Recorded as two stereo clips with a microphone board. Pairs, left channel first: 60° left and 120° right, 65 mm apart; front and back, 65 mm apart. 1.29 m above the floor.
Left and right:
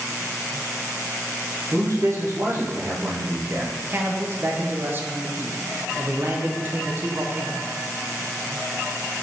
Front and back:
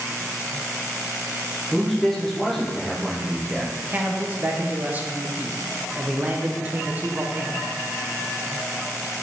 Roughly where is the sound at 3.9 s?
Behind right.